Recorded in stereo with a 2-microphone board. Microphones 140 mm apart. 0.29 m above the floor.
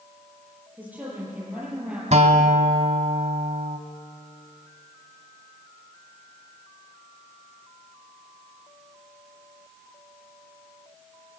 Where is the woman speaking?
10° right (ahead or behind), 8.5 m.